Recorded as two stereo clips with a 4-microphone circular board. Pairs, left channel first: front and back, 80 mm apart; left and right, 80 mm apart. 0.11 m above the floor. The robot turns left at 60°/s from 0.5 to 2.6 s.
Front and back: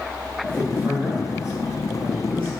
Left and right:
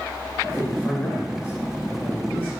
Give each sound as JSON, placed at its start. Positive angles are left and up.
{"t": 0.5, "sound": "a man speaking", "azimuth_deg": 160, "distance_m": 1.9}